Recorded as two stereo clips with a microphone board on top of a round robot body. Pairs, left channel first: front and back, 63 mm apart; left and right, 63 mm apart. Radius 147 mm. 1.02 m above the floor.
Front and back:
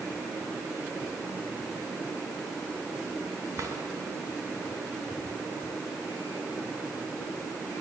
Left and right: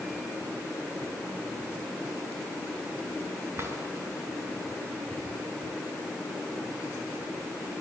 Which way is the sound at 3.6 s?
140° right.